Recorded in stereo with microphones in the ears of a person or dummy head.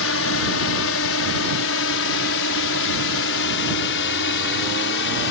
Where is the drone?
65° left (ahead or behind); by 5.3 s 60° left (ahead or behind).